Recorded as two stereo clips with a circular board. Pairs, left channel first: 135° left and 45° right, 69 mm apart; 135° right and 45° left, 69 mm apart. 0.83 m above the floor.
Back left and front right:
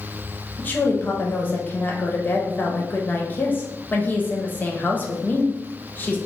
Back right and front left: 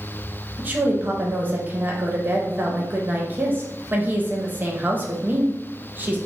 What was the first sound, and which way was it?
A woman speaking, 90° left.